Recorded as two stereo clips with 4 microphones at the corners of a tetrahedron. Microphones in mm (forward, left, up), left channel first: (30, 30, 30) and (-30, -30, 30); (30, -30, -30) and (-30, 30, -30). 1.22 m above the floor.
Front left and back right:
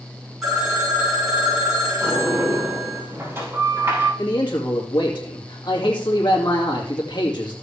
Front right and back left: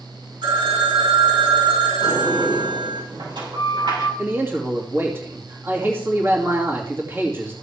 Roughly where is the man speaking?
Left.